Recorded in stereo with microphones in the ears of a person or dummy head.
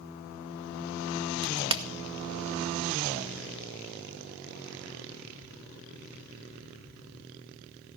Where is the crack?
25° right (ahead or behind), 1.1 m.